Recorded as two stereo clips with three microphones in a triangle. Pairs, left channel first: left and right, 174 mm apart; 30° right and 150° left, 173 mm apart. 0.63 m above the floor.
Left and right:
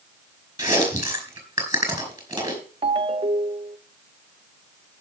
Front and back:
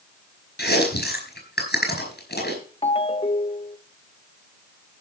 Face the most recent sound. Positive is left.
turn(degrees=-60)